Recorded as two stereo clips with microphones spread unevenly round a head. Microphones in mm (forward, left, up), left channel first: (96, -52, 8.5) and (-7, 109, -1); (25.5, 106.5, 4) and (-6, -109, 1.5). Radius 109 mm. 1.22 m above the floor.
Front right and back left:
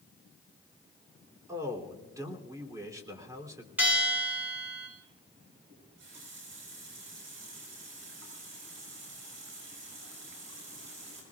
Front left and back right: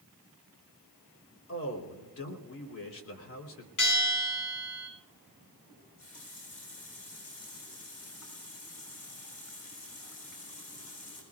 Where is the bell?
40° left, 6 m.